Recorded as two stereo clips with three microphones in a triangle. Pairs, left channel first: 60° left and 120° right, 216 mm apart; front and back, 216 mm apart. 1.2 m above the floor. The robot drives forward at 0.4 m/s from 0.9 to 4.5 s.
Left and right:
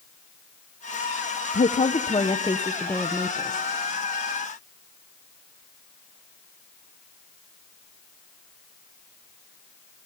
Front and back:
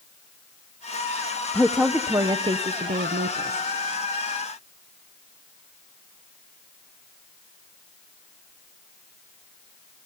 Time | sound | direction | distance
1.5 | a woman speaking | 80° left | 0.7 m